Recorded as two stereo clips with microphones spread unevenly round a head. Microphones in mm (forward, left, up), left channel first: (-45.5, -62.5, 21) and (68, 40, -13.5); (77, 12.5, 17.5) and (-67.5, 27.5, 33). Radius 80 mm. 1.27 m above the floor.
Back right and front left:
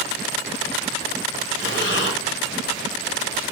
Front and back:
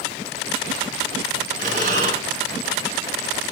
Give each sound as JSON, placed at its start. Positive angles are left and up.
{"t": 1.6, "sound": "breathing", "azimuth_deg": -140, "distance_m": 1.6}